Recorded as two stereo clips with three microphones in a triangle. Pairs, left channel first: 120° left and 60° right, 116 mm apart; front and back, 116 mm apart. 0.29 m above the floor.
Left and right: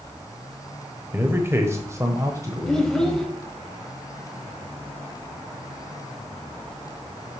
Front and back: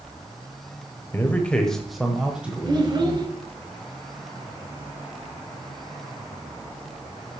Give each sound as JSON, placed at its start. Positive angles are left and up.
{"t": 1.1, "sound": "a man speaking", "azimuth_deg": -30, "distance_m": 1.0}
{"t": 2.7, "sound": "a child speaking", "azimuth_deg": -155, "distance_m": 0.9}